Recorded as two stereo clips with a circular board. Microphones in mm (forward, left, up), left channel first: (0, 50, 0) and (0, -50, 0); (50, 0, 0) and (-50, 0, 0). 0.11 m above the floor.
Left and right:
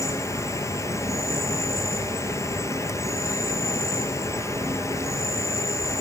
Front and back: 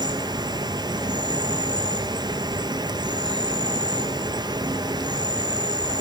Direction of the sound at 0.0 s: 145° left.